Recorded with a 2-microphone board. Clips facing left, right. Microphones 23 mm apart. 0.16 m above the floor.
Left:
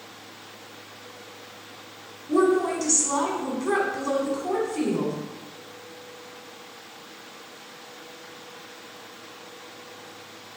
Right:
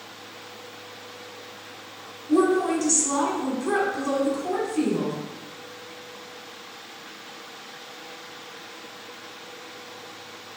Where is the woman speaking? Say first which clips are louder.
Right 1 dB; 20° left (ahead or behind), 1.2 m.